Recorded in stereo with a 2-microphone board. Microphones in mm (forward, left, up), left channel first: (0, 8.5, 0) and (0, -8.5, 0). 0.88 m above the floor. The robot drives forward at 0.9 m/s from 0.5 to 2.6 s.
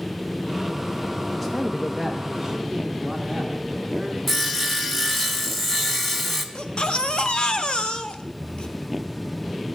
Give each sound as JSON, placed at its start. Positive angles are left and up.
{"t": 1.4, "sound": "a man speaking", "side_deg": 10, "distance_m": 0.7}
{"t": 4.3, "sound": "sawing", "side_deg": 10, "distance_m": 1.2}
{"t": 6.5, "sound": "a baby crying", "side_deg": 70, "distance_m": 0.9}